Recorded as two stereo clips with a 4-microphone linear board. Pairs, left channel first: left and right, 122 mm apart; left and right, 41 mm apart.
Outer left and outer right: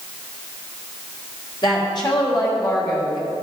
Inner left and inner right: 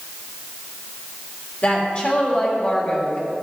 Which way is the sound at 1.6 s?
40° left (ahead or behind).